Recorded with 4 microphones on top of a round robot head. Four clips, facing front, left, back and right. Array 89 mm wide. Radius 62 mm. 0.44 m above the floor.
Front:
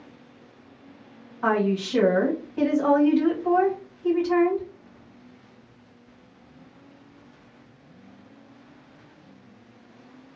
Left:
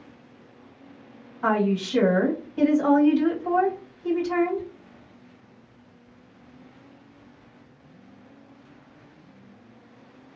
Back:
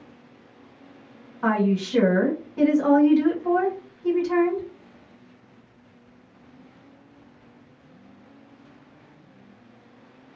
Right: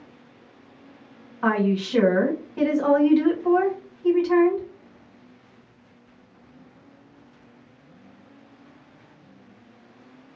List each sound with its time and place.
1.4 s a woman speaking: 105° right, 2 m